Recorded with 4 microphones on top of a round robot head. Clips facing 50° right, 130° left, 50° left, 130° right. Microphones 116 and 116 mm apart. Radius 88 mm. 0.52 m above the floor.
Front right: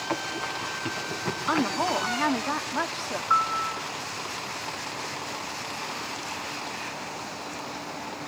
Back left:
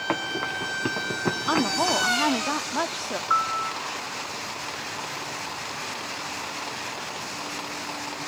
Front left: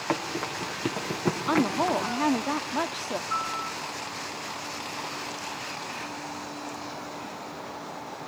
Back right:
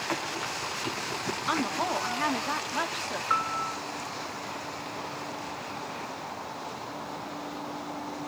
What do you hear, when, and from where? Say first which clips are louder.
0.1 s running footsteps: back left 3 dB, front left 5 dB; 95° left, 4.5 m; by 2.1 s 70° left, 2.5 m
1.5 s a woman speaking: back left 1 dB, front left 4 dB; 65° left, 1.3 m
3.3 s a piano: front right 1 dB, back right 2 dB; 140° right, 0.9 m